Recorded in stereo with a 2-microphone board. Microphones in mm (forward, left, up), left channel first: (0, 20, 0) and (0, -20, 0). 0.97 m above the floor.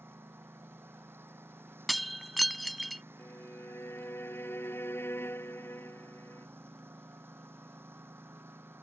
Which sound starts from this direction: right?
A lawn mower, at 0.0 s.